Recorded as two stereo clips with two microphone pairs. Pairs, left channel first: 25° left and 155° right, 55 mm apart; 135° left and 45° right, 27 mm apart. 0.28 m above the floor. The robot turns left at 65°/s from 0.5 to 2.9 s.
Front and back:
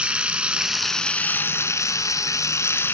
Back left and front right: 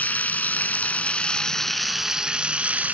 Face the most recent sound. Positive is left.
turn(degrees=-20)